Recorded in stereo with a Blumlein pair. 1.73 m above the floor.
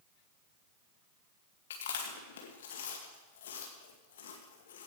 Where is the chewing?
60° left, 2 m.